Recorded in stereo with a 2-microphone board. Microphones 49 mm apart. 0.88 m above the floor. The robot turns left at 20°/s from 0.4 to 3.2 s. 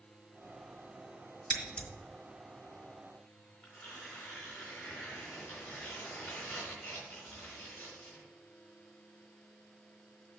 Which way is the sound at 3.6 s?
45° left (ahead or behind).